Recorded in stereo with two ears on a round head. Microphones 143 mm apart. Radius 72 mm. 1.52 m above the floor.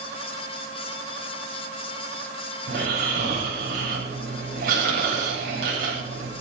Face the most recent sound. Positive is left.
turn(degrees=-60)  # may be behind; listen again after turning